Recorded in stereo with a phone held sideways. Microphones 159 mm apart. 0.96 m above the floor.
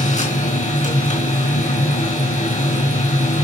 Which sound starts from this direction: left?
A machine running, at 0.0 s.